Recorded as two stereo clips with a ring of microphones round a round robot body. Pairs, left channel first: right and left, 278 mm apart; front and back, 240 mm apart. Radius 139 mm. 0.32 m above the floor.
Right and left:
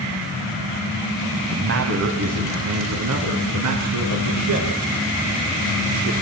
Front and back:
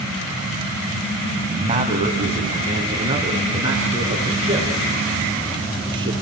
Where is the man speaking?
125° left, 2 m; by 6.1 s 105° left, 6.5 m.